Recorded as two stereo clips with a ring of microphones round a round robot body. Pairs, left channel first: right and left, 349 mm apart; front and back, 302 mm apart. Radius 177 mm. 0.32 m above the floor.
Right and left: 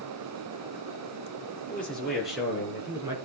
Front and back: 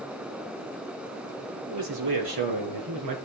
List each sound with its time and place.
1.7 s a man speaking: 175° right, 6 m; by 3.2 s 170° left, 4.5 m